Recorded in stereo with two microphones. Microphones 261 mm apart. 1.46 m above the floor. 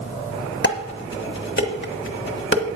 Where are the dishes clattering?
40° left (ahead or behind), 1.2 m.